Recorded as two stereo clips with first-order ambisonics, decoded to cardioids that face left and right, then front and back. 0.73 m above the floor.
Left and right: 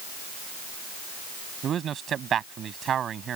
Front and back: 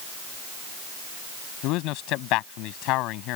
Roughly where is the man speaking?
Ahead right.